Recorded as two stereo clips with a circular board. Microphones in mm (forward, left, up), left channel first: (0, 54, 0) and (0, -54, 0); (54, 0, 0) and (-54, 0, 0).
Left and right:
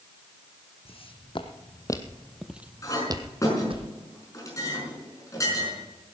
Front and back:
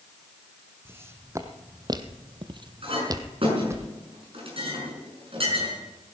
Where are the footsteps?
115° left, 1.8 m; by 3.8 s 115° right, 1.6 m.